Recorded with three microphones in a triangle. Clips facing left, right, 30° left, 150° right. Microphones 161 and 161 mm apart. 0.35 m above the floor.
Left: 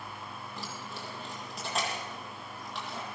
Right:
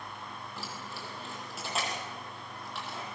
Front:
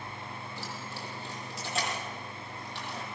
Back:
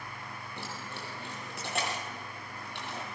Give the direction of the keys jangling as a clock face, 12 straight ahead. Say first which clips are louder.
Left 1 dB, back 2 dB; 6 o'clock.